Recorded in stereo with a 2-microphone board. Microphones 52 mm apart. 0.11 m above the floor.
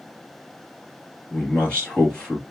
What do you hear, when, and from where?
1.3 s a man speaking: 20° left (ahead or behind), 2.5 m